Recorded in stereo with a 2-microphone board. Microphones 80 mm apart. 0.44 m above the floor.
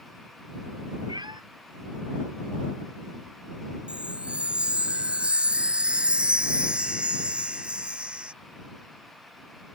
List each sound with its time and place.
1.1 s a cat meowing: 65° right (ahead or behind)
3.9 s a chime: 10° right (ahead or behind)